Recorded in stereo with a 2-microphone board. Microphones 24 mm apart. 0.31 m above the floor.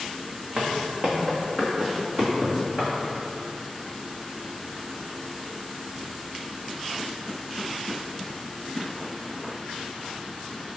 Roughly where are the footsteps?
Right.